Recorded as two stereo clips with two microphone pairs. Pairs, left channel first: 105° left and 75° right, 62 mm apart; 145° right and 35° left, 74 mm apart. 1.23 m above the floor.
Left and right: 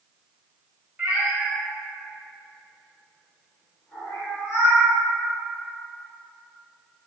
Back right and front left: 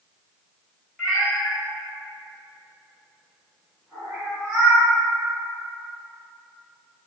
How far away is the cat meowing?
About 1.1 m.